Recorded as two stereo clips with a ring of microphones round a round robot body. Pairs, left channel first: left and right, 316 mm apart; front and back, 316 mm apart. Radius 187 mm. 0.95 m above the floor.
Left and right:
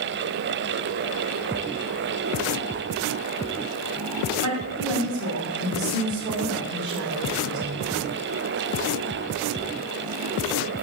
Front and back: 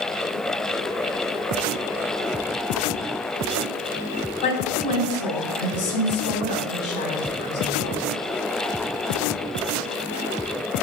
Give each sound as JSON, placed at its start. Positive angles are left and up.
{"t": 4.4, "sound": "a woman speaking", "azimuth_deg": -15, "distance_m": 5.5}